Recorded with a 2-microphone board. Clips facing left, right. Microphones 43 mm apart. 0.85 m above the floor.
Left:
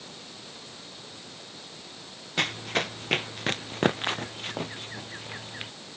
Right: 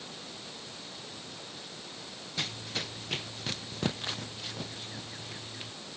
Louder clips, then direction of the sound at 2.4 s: Left 9 dB; 55° left (ahead or behind).